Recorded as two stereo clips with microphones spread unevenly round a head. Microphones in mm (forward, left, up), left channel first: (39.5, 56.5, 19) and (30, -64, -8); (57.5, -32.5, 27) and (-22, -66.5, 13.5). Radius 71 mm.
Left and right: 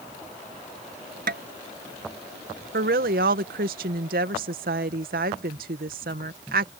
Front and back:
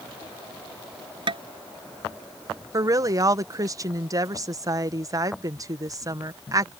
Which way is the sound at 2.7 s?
110° right.